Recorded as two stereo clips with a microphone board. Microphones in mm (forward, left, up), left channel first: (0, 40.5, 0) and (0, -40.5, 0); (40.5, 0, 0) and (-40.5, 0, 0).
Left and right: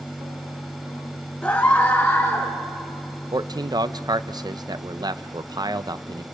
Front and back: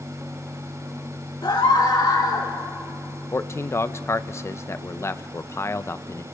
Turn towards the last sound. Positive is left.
turn(degrees=-55)